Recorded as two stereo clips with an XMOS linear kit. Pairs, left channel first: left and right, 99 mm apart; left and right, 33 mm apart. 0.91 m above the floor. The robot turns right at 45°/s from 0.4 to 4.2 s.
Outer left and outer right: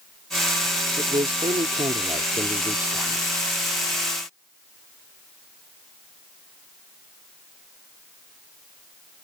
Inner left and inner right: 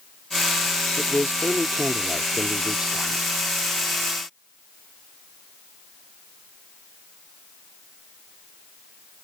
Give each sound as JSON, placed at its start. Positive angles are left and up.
{"t": 1.0, "sound": "a man speaking", "azimuth_deg": -110}